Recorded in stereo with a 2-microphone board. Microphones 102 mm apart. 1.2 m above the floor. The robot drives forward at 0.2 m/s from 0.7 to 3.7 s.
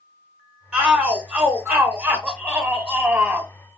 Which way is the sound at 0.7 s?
5° right (ahead or behind).